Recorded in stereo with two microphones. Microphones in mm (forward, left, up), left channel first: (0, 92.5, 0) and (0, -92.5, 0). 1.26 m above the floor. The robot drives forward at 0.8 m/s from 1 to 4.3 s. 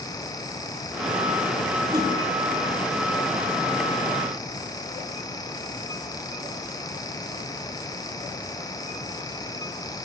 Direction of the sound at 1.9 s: 20° right (ahead or behind).